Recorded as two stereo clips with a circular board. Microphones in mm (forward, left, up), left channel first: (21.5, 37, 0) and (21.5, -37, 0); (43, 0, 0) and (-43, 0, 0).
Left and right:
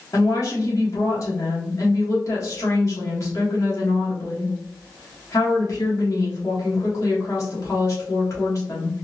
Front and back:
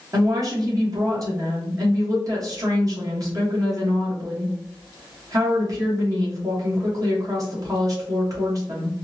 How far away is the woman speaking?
About 1.6 m.